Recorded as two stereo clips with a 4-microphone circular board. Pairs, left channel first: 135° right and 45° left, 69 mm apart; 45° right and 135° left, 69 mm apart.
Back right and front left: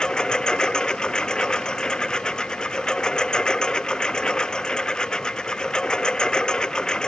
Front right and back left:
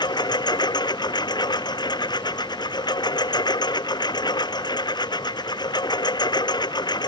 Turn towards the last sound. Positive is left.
turn(degrees=-55)